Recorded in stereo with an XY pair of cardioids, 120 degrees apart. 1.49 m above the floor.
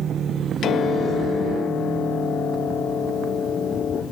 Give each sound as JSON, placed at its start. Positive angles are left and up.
{"t": 0.6, "sound": "a piano", "azimuth_deg": 55, "distance_m": 1.2}